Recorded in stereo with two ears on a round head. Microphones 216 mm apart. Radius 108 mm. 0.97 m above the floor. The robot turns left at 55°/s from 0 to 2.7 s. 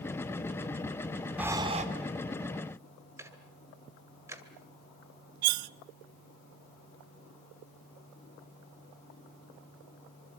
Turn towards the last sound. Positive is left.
turn(degrees=-80)